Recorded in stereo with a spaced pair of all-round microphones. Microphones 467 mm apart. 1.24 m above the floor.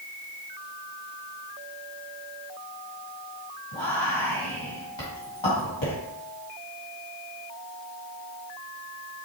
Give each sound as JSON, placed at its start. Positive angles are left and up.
{"t": 3.7, "sound": "whispering", "side_deg": 75, "distance_m": 2.0}